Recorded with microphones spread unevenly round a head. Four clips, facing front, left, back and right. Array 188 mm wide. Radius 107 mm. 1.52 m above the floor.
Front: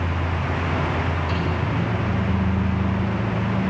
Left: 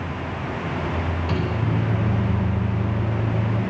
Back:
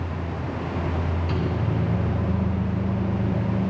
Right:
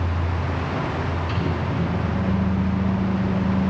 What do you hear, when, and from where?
1.3 s a microwave: 115° left, 1.8 m